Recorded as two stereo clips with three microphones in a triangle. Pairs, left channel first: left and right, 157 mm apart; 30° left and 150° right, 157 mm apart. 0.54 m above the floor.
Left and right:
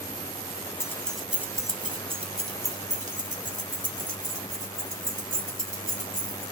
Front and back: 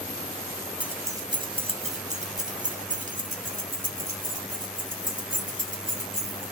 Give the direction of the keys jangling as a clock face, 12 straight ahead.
7 o'clock.